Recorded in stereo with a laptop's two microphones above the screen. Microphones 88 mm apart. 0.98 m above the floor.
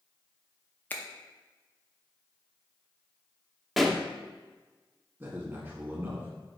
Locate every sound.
0.9 s a finger snap: 20° left (ahead or behind), 0.7 m
3.8 s a pop: centre (ahead or behind), 0.6 m
5.2 s a man speaking: 20° right (ahead or behind), 1.3 m